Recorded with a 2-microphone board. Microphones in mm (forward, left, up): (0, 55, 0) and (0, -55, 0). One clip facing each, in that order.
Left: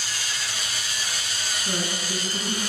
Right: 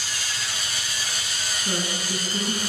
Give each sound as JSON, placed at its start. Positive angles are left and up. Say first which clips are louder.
{"t": 1.6, "sound": "a woman speaking", "louder": "right 1 dB", "side_deg": -15, "distance_m": 1.3}